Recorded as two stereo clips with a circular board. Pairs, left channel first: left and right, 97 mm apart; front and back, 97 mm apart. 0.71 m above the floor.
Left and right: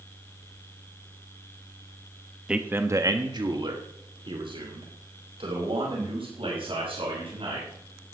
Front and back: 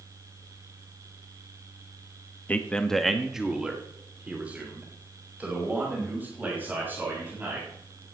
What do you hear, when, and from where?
2.5 s a man speaking: 30° right, 1.1 m; by 7.7 s 110° right, 7 m